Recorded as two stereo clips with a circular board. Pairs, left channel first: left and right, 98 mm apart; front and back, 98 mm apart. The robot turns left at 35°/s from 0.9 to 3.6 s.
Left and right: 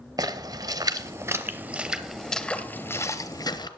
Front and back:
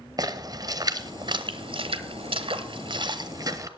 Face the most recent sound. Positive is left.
turn(degrees=130)